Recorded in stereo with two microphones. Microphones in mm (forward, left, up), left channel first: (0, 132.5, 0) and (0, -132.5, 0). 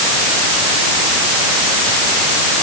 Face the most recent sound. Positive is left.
No sound to turn to.